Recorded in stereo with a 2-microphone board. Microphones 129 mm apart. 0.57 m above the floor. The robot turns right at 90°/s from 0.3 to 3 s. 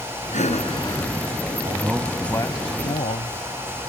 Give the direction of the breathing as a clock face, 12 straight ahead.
9 o'clock.